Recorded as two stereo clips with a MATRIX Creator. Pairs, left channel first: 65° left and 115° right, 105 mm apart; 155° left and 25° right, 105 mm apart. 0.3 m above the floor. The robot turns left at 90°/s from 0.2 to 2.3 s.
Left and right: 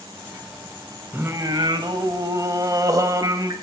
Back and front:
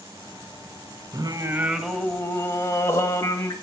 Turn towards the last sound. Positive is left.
turn(degrees=-150)